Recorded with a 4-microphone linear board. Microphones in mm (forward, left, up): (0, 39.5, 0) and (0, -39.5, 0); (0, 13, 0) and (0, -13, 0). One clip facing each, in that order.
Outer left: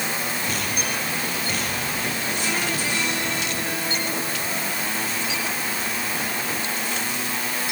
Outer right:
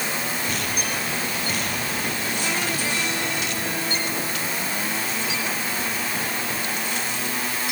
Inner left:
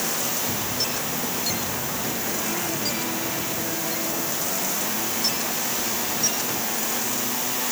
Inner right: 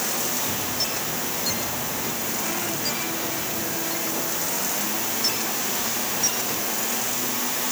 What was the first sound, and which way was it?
Only background noise.